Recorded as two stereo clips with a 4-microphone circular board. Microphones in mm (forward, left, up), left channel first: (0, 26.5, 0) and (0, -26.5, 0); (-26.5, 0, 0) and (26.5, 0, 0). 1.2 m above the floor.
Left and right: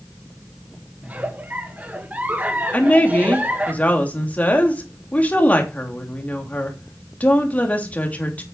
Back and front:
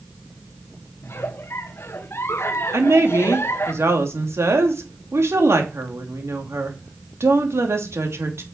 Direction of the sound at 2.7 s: 30° left.